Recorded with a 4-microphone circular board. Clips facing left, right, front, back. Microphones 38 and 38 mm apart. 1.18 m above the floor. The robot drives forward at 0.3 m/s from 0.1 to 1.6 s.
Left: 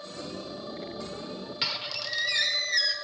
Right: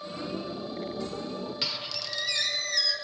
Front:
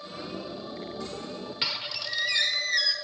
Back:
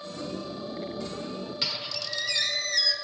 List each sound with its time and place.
1.6 s a squeak: 25° left, 0.9 m